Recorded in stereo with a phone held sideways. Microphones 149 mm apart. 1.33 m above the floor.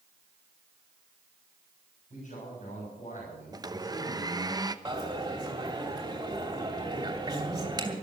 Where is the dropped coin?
25° right (ahead or behind), 2.5 m.